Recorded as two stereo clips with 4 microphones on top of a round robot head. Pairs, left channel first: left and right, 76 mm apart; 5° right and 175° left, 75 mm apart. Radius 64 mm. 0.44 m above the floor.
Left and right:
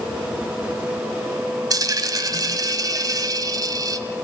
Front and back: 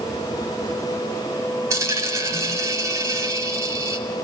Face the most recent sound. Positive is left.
turn(degrees=-125)